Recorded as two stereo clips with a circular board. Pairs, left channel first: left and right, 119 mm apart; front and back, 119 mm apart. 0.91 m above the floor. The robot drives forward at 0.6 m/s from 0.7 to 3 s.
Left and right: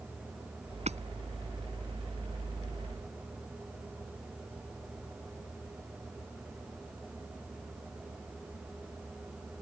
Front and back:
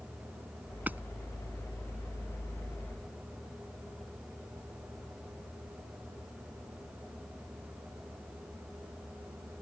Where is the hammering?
105° right.